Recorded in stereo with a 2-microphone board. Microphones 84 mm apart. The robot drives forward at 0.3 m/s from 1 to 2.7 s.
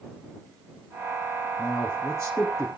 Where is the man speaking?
35° left (ahead or behind), 3 m; by 2.7 s 30° left (ahead or behind), 3.5 m.